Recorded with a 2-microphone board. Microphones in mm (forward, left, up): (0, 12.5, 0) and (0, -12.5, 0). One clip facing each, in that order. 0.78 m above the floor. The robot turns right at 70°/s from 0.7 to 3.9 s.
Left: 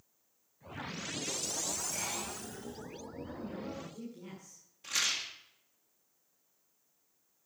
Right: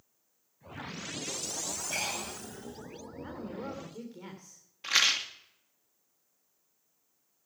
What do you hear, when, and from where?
1.9 s breathing: 125° right, 5.5 m; by 2.4 s 90° right, 5.5 m
3.2 s a woman speaking: 120° right, 3 m; by 4.6 s 70° right, 3 m
4.8 s a rattle: 50° right (ahead or behind), 1.6 m